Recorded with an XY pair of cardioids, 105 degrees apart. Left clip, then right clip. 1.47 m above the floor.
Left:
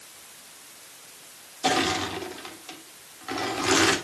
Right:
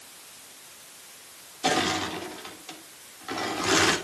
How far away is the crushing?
About 2.5 m.